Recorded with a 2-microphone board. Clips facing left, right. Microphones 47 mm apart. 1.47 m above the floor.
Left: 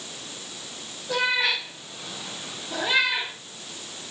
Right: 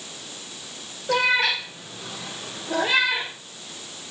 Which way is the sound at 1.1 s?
60° right (ahead or behind).